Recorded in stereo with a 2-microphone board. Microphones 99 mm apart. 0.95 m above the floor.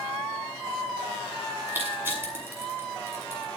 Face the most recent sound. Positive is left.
turn(degrees=-20)  # may be behind; listen again after turning